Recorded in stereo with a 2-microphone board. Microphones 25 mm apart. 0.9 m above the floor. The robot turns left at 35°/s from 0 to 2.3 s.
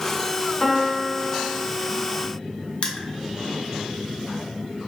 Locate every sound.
0.6 s a piano: 145° right, 1.8 m; by 1.7 s 175° left, 1.8 m
2.8 s crushing: 40° left (ahead or behind), 0.5 m